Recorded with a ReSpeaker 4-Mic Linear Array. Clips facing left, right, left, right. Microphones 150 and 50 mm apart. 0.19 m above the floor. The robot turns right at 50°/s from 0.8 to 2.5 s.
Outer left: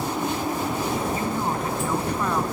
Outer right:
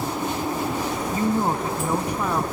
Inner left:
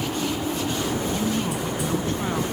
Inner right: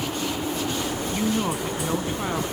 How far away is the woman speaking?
About 1.4 m.